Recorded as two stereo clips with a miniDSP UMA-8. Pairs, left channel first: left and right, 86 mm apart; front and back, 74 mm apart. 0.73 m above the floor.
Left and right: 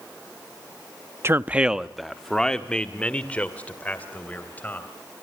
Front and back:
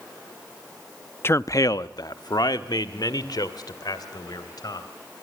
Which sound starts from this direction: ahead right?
A man speaking, at 1.2 s.